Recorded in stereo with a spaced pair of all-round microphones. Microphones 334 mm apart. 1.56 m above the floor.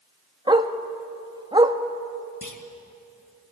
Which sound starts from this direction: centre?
A dog barking, at 0.5 s.